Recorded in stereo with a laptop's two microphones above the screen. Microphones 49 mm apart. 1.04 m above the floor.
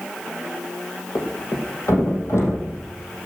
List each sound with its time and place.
1.1 s a thud: 75° left (ahead or behind), 5 m